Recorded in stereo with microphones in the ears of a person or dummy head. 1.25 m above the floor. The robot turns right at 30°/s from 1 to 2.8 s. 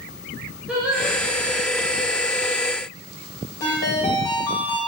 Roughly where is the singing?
Centre.